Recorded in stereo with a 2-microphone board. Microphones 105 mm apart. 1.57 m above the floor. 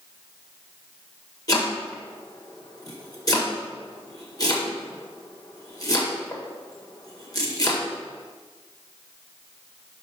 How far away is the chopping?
About 1.7 m.